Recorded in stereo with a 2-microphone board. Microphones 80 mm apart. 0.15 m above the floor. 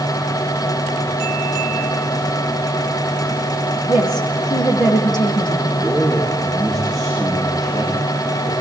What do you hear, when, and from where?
3.9 s a woman speaking: 65° left (ahead or behind), 7 m
5.7 s a man speaking: 5° left (ahead or behind), 9 m